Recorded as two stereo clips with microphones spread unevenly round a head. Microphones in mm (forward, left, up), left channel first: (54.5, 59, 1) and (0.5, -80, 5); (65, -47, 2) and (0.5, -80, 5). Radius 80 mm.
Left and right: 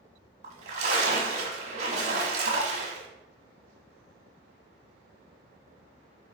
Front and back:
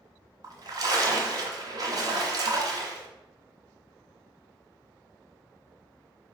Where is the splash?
150° right, 1.4 m.